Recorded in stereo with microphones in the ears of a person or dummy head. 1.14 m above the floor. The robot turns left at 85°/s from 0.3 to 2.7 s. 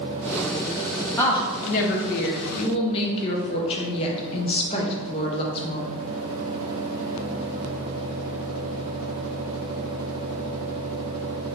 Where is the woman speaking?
170° left, 0.7 m; by 5.9 s 40° left, 0.7 m.